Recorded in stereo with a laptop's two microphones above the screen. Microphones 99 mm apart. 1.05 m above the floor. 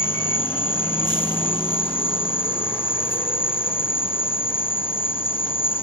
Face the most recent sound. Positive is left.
turn(degrees=60)  # may be behind; listen again after turning